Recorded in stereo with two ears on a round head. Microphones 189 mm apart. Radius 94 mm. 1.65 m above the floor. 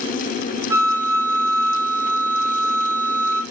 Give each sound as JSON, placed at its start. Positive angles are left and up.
{"t": 0.7, "sound": "a flute", "side_deg": -15, "distance_m": 0.5}